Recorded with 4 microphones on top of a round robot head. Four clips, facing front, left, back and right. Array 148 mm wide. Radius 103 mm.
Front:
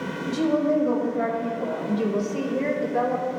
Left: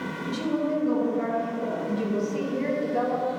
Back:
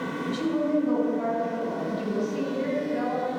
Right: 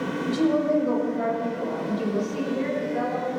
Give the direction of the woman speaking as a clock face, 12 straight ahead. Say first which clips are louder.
Right 5 dB, front 4 dB; 1 o'clock.